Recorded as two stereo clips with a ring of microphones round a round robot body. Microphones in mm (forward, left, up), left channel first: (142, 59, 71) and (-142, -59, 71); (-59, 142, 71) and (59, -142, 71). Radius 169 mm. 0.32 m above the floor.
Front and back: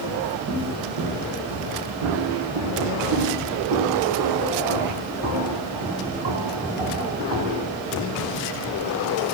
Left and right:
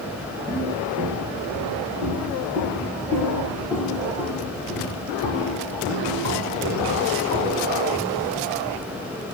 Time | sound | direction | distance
0.5 | footsteps | 145° right | 5 m